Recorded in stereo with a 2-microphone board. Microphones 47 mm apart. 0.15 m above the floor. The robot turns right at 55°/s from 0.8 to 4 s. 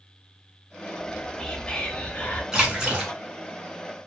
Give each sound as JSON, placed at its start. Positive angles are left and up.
{"t": 1.0, "sound": "whispering", "azimuth_deg": 15, "distance_m": 1.2}
{"t": 2.5, "sound": "a splash", "azimuth_deg": -155, "distance_m": 1.0}